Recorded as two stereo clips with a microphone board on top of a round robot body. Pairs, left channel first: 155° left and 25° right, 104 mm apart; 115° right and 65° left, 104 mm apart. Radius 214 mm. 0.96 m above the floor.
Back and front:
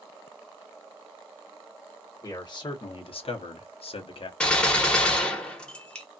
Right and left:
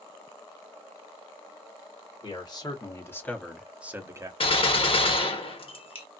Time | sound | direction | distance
2.2 | a man speaking | 155° right | 1.5 m
4.4 | a gunshot | 125° right | 1.3 m